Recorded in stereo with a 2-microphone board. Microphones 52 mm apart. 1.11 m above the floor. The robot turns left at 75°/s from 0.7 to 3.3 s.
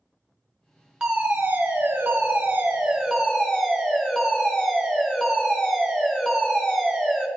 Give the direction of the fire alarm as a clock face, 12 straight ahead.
1 o'clock.